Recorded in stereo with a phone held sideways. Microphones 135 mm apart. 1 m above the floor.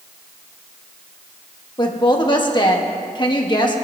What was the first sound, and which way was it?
A woman speaking, 35° left (ahead or behind).